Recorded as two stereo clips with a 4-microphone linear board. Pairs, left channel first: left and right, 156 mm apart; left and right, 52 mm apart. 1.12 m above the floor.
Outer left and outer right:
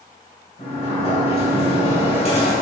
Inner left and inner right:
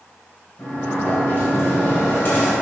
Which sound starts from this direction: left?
A sliding door, at 0.6 s.